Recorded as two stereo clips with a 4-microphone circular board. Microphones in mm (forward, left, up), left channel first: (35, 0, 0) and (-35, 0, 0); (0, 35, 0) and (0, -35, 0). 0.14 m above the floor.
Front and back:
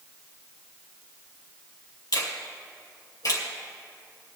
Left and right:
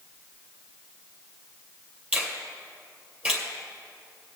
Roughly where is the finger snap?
Ahead right.